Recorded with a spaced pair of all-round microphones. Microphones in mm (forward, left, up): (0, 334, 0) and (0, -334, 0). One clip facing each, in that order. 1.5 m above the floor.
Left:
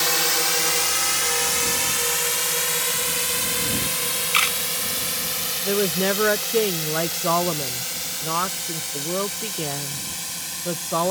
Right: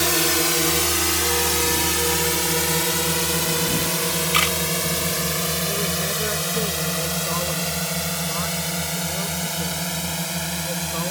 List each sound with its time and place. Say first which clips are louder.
0.0 s a drone: right 6 dB; 70° right (ahead or behind); by 11.1 s 85° right
4.3 s a camera shutter: right 7 dB; 70° right (ahead or behind)
5.7 s a woman speaking: left 6 dB; 80° left